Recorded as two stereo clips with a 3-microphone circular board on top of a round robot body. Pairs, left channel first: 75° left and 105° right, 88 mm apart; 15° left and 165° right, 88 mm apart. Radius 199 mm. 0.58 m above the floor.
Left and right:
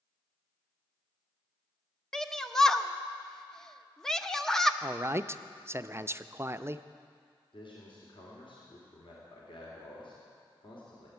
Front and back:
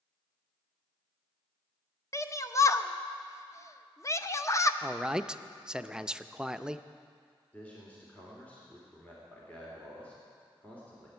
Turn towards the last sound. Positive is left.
turn(degrees=90)